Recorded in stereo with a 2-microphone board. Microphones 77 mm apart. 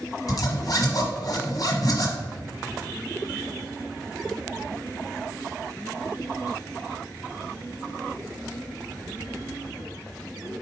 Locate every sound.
0.3 s a zipper: 50° left (ahead or behind), 1.0 m